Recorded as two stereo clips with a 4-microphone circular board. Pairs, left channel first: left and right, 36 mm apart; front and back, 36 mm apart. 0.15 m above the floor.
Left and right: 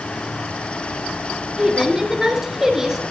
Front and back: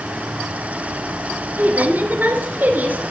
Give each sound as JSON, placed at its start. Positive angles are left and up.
{"t": 1.6, "sound": "a woman speaking", "azimuth_deg": -160, "distance_m": 2.5}